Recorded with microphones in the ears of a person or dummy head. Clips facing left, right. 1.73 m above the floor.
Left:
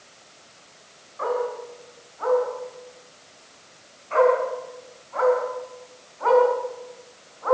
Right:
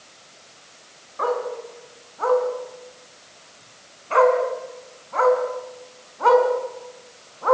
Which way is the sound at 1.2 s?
50° right (ahead or behind).